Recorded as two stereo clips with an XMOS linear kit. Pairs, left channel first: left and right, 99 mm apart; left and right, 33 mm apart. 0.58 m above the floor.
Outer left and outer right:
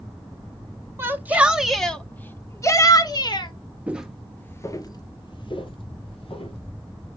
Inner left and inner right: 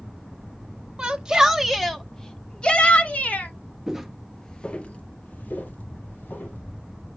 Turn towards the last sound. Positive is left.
turn(degrees=75)  # may be behind; listen again after turning